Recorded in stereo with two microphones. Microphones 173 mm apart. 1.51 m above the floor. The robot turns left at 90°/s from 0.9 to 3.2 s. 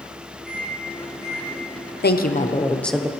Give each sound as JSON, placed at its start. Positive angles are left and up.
{"t": 0.5, "sound": "a microwave", "side_deg": -5, "distance_m": 5.0}
{"t": 2.0, "sound": "a woman speaking", "azimuth_deg": 80, "distance_m": 0.7}